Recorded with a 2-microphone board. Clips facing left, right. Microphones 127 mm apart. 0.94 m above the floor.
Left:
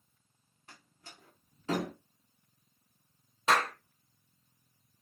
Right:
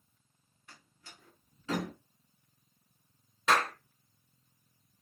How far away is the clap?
About 1.2 m.